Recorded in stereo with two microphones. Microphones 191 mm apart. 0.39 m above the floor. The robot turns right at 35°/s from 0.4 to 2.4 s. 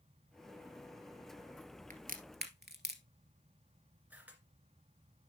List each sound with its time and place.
1.9 s a crack: 40° right (ahead or behind), 1.4 m; by 3.0 s 60° right (ahead or behind), 1.4 m
4.1 s a camera shutter: 10° right (ahead or behind), 2 m